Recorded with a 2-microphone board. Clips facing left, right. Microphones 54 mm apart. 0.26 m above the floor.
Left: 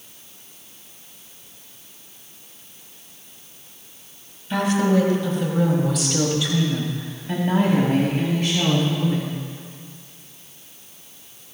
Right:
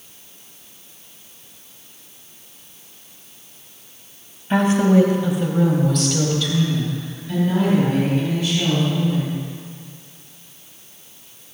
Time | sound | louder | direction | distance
4.5 | a woman speaking | right 4 dB | 35° right (ahead or behind) | 1.8 m